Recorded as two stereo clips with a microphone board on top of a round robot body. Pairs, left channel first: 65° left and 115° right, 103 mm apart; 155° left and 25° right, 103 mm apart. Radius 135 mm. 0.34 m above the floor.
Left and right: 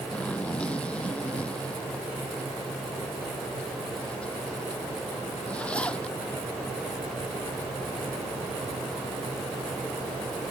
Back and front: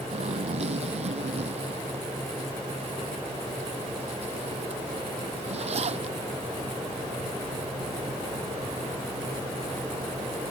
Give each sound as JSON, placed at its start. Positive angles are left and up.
{"t": 0.1, "sound": "a zipper", "azimuth_deg": -10}